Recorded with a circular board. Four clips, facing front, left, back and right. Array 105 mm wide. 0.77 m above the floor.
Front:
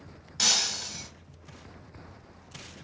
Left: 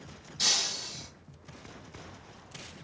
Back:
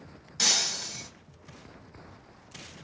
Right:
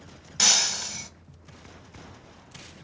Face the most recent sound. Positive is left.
turn(degrees=-85)